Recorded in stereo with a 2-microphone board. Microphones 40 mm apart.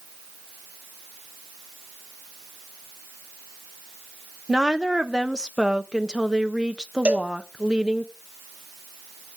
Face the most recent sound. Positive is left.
turn(degrees=-35)  # may be behind; listen again after turning